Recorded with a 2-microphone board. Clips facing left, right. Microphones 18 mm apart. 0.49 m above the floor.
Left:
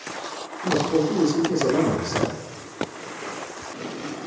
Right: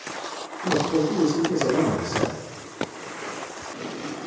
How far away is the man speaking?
About 1.0 m.